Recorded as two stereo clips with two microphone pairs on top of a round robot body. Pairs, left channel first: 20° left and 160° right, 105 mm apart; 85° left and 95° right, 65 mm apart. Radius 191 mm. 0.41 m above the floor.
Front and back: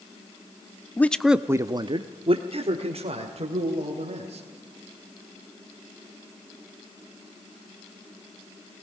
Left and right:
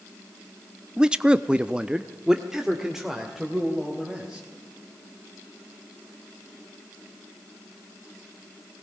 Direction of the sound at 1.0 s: 15° right.